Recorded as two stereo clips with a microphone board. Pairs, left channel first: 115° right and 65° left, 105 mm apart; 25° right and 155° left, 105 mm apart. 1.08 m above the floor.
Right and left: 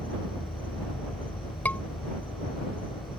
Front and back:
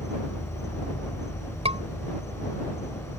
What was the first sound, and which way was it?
An insect, 80° right.